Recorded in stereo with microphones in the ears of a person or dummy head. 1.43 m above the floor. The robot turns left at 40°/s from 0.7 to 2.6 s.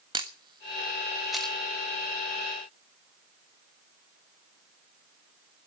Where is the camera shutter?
25° right (ahead or behind), 1.4 m; by 1.5 s 5° left (ahead or behind), 1.4 m.